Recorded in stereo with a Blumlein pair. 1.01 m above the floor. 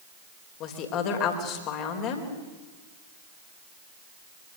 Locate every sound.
0.6 s a woman speaking: 35° left, 4.5 m